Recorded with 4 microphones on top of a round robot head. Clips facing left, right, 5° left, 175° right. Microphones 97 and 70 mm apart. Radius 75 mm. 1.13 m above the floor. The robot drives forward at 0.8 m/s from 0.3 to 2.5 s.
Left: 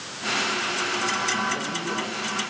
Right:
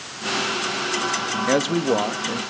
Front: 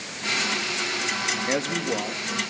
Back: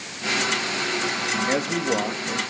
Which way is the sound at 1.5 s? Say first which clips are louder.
Right 9 dB, back 3 dB; 90° right.